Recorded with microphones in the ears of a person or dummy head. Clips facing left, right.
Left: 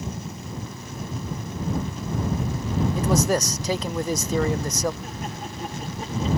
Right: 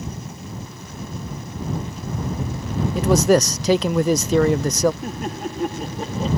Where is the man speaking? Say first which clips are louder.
Right 8 dB; 50° right (ahead or behind).